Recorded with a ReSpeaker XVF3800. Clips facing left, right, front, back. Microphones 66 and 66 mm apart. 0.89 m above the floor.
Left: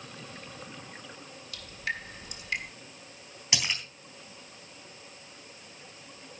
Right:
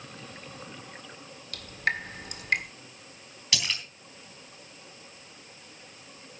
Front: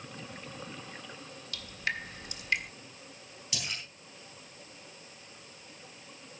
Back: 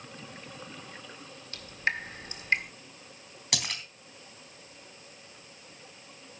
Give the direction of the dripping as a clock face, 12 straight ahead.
4 o'clock.